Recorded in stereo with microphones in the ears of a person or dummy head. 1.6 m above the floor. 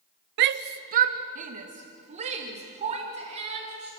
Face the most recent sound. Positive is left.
turn(degrees=-30)  # may be behind; listen again after turning